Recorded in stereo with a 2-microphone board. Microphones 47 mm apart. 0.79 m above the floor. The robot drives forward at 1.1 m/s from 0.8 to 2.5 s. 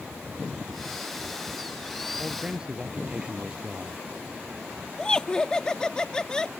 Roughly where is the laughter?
Centre.